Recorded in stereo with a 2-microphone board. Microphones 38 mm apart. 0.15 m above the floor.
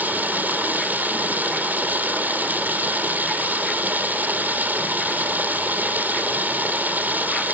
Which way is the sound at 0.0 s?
55° right (ahead or behind).